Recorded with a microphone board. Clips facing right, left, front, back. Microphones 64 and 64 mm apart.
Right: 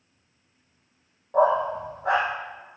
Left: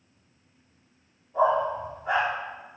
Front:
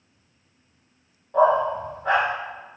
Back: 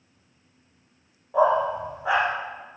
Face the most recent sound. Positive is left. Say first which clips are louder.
# right 2 dB, front 2 dB
turn(degrees=-95)